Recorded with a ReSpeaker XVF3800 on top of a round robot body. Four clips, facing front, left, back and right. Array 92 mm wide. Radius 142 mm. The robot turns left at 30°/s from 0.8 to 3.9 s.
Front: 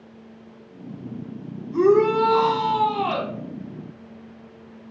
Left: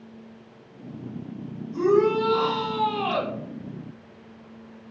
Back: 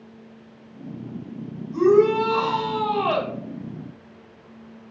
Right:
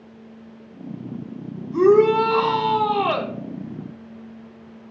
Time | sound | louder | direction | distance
1.7 | a shout | right 6 dB, even | 45° right | 3.5 m